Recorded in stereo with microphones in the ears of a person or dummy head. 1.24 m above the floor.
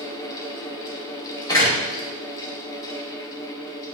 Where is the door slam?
20° left (ahead or behind), 3.5 m.